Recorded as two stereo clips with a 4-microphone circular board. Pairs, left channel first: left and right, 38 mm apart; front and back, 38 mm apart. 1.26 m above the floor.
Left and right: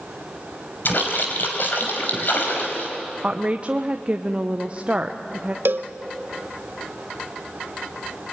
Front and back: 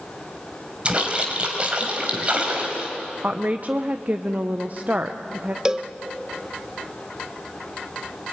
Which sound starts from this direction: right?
A cowbell, at 5.7 s.